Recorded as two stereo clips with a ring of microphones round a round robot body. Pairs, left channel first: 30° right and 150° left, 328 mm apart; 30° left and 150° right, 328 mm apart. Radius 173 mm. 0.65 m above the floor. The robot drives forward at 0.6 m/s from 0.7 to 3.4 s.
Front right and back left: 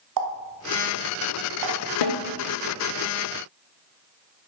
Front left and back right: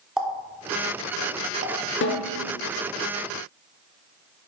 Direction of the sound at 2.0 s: 25° right.